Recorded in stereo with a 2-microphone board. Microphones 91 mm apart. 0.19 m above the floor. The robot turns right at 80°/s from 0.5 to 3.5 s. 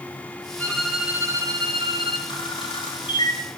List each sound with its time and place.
0.6 s a violin: 160° left, 6.5 m; by 2.2 s 70° right, 6.5 m
2.3 s a camera shutter: 50° left (ahead or behind), 9.5 m; by 3.4 s 40° left (ahead or behind), 9.5 m